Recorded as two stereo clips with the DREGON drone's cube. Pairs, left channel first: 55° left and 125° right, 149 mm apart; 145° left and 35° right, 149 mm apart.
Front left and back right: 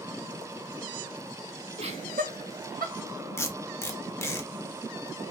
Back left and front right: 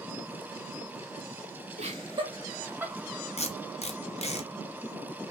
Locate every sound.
1.8 s laughter: 75° right, 0.8 m; by 2.9 s 115° right, 1.0 m
3.4 s tape being pulled: 120° left, 0.5 m